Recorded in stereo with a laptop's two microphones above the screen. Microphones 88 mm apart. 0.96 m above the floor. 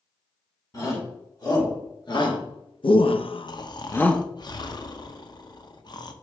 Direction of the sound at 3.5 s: 50° left (ahead or behind).